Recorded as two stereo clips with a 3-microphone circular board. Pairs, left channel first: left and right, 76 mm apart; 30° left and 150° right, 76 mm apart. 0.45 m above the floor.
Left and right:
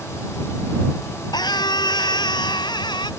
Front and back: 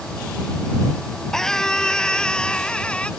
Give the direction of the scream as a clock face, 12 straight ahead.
8 o'clock.